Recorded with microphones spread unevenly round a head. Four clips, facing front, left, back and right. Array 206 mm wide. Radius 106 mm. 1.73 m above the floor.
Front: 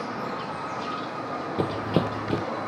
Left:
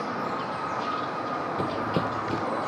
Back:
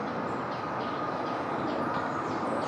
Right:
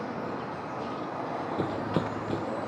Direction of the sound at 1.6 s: 5° right.